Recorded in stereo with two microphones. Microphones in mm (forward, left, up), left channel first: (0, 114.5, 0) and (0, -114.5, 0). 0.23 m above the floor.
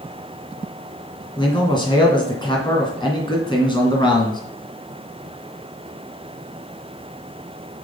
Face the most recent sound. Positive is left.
turn(degrees=20)  # may be behind; listen again after turning